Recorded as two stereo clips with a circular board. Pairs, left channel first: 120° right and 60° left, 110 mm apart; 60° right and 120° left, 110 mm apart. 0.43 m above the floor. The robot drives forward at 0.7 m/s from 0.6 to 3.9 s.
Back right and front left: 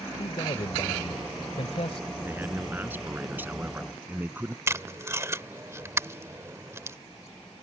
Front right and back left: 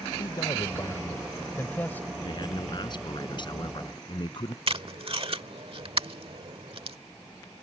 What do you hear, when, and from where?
0.2 s a man speaking: 105° right; by 2.1 s 135° right
2.2 s a man speaking: 10° right; by 4.6 s 15° right
4.7 s tape being pulled: 120° left